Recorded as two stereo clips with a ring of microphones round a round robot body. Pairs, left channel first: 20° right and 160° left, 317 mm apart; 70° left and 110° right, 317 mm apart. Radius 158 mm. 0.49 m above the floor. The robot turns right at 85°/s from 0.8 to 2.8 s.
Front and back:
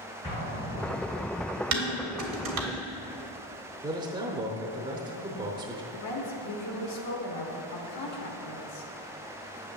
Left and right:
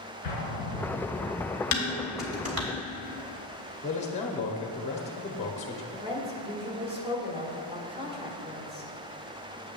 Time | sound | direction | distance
0.2 | an explosion | 60° left | 3 m
1.7 | dishes clattering | 115° left | 1.4 m
3.8 | a man speaking | 105° left | 0.7 m
5.9 | a woman speaking | 45° right | 1.3 m